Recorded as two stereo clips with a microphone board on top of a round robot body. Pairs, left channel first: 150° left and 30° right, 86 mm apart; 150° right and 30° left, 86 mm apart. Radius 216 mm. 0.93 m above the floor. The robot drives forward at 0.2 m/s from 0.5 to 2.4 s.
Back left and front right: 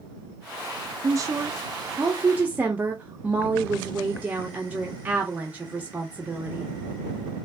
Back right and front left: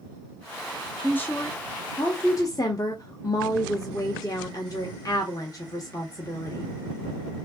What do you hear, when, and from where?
1.0 s a woman speaking: 80° right, 0.7 m; by 6.7 s 100° right, 0.7 m